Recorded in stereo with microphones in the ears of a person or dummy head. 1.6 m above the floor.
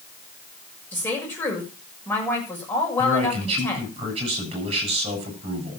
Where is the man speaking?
30° right (ahead or behind), 8 m.